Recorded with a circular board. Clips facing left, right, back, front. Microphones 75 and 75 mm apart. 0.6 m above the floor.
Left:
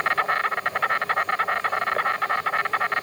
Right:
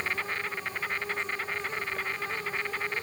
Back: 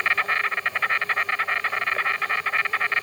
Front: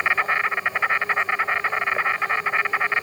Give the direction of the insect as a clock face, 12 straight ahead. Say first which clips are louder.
Left 10 dB, front 2 dB; 9 o'clock.